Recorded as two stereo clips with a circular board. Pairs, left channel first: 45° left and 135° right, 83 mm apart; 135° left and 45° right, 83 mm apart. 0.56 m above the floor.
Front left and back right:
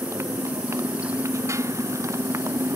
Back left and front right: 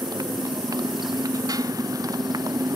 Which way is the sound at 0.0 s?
85° right.